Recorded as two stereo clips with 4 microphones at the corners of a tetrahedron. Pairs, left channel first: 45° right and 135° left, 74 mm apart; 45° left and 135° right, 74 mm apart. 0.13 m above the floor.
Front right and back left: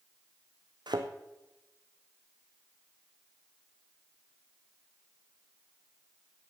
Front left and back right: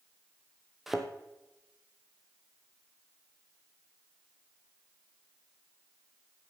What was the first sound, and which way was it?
A thud, 135° left.